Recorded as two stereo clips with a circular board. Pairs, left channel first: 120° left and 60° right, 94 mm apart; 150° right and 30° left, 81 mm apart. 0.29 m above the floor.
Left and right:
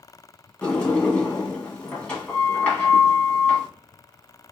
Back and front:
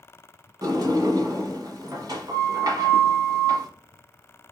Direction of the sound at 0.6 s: 45° left.